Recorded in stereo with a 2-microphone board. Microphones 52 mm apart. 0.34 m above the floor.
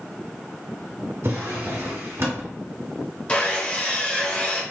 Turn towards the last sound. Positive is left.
turn(degrees=25)  # may be behind; listen again after turning